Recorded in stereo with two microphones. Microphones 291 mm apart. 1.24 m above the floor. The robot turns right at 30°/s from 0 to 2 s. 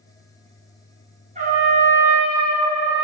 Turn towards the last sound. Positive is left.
turn(degrees=-5)  # may be behind; listen again after turning